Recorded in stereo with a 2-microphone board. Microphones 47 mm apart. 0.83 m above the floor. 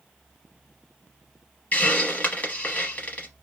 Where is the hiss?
40° left (ahead or behind), 0.8 m.